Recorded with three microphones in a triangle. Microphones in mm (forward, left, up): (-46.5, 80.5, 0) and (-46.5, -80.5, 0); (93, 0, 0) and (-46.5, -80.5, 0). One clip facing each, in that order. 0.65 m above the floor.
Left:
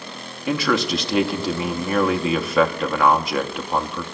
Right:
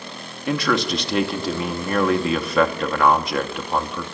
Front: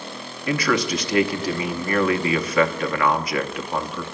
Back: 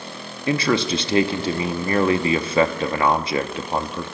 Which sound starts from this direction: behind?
A man speaking, at 0.5 s.